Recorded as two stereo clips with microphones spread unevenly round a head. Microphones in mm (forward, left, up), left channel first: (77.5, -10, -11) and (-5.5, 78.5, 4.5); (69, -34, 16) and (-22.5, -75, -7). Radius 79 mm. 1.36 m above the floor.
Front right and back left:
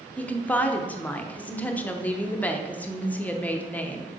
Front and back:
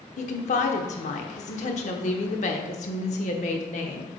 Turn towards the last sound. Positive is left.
turn(degrees=30)